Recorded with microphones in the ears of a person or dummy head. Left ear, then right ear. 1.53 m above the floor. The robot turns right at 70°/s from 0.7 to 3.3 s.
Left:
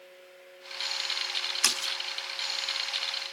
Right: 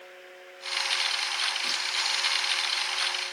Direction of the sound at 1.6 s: 65° left (ahead or behind).